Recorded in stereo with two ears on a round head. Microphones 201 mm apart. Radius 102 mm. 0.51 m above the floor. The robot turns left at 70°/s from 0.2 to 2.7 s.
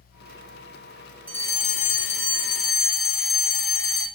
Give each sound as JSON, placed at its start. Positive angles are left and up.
{"t": 1.3, "sound": "a fire alarm", "azimuth_deg": 175, "distance_m": 4.0}